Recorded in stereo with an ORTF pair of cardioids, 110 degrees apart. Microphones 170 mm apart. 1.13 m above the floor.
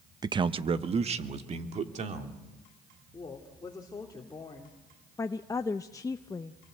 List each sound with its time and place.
0.2 s a man speaking: 25° right, 0.8 m; by 2.4 s 45° right, 3 m
3.1 s a woman speaking: 20° left, 3 m
5.2 s a woman speaking: 20° left, 0.7 m